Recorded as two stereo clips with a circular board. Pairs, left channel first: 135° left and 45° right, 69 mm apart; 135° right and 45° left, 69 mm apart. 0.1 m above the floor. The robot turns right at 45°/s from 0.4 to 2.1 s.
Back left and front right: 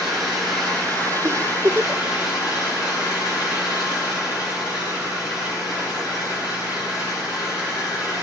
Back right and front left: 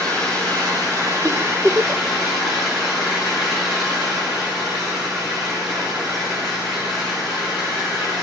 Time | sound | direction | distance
0.0 | an engine running | 50° left | 8.5 m
1.2 | a giggle | 15° right | 0.6 m